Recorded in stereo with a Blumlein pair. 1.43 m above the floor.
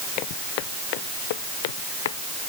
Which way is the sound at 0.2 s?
40° left.